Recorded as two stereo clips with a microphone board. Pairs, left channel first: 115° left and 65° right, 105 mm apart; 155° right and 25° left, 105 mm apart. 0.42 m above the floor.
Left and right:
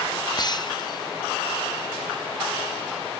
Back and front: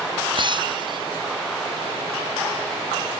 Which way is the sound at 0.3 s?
65° left.